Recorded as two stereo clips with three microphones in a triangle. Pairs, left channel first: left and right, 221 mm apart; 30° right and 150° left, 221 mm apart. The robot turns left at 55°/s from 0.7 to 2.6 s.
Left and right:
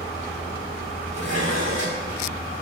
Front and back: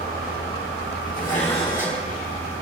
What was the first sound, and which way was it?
Dishes clattering, 70° right.